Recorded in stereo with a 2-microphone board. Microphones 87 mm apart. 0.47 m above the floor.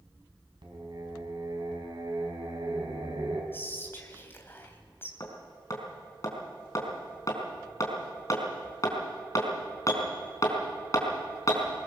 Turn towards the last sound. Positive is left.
turn(degrees=40)  # may be behind; listen again after turning